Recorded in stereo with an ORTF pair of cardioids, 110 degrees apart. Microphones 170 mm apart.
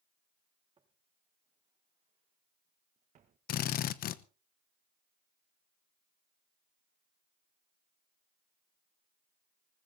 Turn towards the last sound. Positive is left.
turn(degrees=65)